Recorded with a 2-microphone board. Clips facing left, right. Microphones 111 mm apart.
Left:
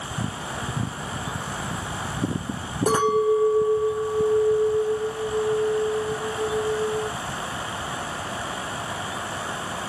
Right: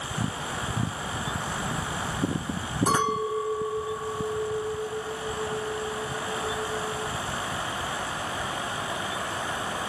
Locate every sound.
2.9 s a clink: 50° left (ahead or behind), 2.0 m